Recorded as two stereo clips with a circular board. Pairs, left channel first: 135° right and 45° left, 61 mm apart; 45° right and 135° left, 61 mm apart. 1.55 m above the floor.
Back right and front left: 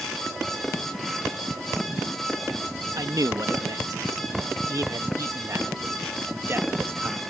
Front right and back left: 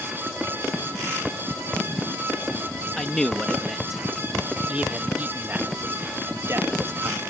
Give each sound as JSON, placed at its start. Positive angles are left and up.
{"t": 3.0, "sound": "a man speaking", "azimuth_deg": 35}